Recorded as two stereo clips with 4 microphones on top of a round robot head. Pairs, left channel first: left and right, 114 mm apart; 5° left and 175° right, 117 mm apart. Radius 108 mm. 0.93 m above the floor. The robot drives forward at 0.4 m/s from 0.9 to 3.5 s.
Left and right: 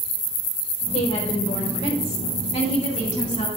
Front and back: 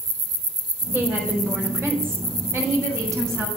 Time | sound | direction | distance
0.9 | a woman speaking | 110° left | 4 m